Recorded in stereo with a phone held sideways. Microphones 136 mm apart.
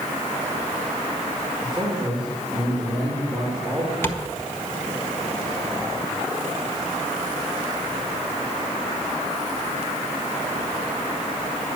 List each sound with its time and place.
1.6 s a man speaking: centre (ahead or behind), 4 m
4.0 s tapping: 20° left (ahead or behind), 1.4 m